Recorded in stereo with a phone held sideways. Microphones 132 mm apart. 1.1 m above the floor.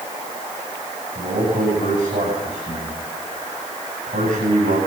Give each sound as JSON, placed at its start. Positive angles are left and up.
{"t": 1.1, "sound": "a man speaking", "side_deg": -85, "distance_m": 9.5}